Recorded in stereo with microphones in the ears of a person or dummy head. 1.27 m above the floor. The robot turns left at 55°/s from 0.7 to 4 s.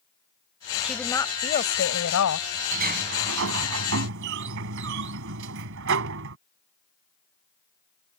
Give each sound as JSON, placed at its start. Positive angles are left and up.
{"t": 0.8, "sound": "a woman speaking", "azimuth_deg": 180}
{"t": 2.7, "sound": "a sliding door", "azimuth_deg": -45}